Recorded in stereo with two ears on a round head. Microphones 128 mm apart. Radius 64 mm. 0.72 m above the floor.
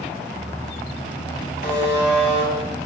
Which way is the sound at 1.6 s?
70° left (ahead or behind).